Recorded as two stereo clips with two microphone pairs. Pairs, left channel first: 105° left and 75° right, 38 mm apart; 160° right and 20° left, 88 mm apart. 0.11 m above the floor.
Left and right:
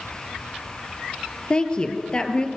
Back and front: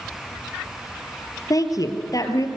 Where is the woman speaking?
170° left, 2 m.